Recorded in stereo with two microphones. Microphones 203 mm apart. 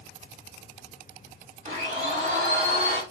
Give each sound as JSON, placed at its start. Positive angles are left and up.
{"t": 1.6, "sound": "a blender", "side_deg": -40, "distance_m": 4.5}